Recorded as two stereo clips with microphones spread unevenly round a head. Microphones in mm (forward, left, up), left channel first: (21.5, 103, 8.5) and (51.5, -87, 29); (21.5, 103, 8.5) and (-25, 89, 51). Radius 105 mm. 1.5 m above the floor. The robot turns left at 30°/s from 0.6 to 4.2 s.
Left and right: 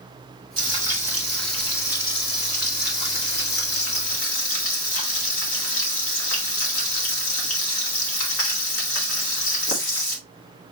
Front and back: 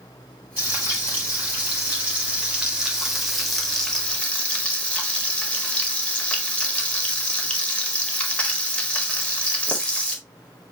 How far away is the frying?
About 1.6 m.